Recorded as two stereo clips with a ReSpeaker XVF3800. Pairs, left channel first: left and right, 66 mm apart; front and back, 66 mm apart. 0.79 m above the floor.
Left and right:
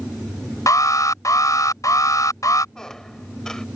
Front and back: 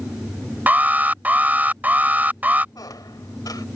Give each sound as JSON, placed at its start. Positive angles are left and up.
{"t": 0.7, "sound": "an alarm", "azimuth_deg": 115}
{"t": 2.8, "sound": "a squeak", "azimuth_deg": 10}